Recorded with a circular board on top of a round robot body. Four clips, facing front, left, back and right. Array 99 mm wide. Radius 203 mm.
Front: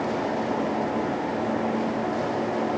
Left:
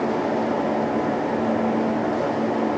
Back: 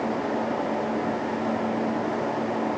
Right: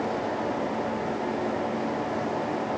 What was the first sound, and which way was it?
Only background noise.